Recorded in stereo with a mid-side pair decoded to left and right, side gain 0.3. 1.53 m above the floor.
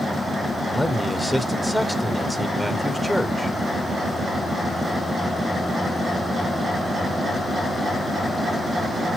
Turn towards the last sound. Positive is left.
turn(degrees=-5)